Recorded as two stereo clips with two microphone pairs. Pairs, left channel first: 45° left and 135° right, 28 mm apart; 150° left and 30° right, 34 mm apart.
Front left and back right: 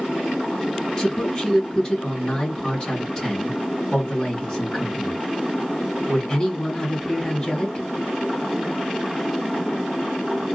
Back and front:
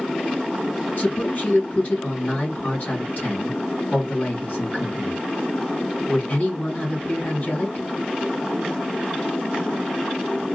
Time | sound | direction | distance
1.0 | a man speaking | 110° left | 2 m